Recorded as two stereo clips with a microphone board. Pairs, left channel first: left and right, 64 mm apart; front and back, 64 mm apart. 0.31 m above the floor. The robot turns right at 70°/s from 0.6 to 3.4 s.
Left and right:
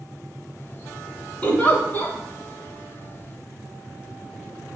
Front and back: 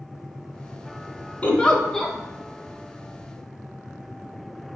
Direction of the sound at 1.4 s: 40° left.